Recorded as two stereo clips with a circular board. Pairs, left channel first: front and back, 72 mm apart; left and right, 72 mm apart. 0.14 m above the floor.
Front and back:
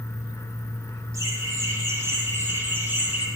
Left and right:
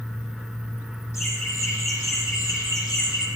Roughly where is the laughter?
Behind left.